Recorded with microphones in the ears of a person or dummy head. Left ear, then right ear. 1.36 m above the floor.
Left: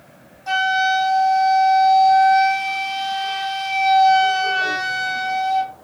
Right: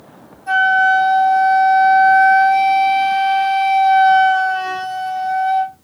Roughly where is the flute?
Left.